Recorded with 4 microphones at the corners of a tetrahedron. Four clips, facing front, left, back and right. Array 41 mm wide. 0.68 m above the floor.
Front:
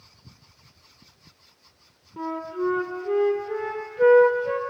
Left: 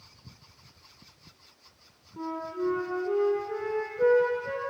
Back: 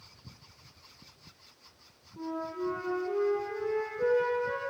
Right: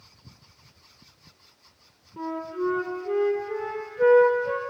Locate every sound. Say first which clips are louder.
2.2 s a flute: right 3 dB, front 6 dB; 15° right, 1.7 m